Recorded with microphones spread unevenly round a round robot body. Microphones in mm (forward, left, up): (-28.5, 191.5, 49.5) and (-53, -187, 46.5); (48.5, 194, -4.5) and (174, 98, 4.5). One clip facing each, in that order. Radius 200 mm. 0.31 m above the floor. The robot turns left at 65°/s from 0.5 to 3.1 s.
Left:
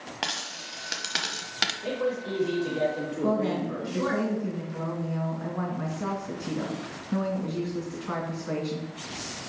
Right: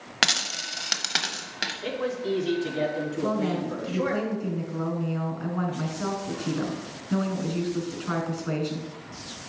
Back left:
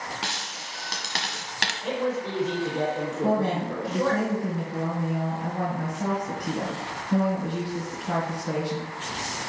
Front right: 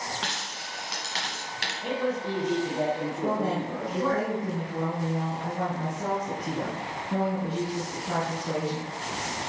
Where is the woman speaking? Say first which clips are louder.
Left 2 dB, back left 4 dB; 125° right, 3.5 m.